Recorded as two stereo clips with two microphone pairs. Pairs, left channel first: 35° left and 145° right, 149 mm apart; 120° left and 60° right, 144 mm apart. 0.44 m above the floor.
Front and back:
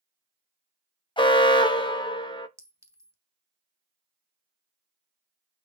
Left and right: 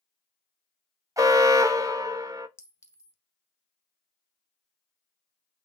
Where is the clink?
160° left, 0.8 m.